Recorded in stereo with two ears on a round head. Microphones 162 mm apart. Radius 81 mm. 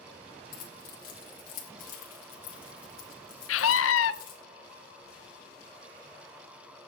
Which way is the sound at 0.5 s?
50° left (ahead or behind).